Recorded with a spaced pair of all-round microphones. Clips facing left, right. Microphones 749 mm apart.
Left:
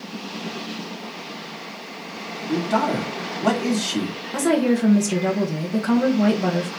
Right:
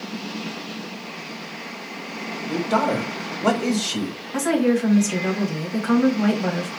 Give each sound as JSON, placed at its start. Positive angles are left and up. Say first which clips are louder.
{"t": 2.5, "sound": "a man speaking", "louder": "even", "side_deg": -10, "distance_m": 1.6}
{"t": 4.3, "sound": "a woman speaking", "louder": "even", "side_deg": 65, "distance_m": 1.6}